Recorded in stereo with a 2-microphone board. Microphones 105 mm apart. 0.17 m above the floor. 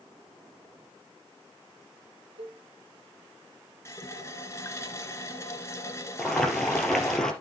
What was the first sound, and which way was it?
A cowbell, 70° right (ahead or behind).